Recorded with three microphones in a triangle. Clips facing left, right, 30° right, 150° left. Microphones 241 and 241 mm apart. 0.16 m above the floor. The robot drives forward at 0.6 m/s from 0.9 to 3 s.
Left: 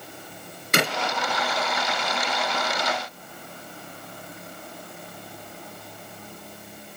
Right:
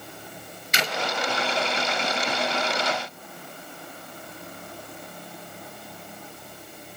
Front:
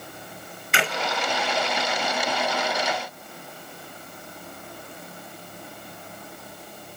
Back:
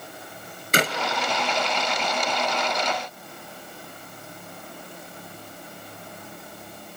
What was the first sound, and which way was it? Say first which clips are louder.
A clap: left 6 dB, back 4 dB; 110° left.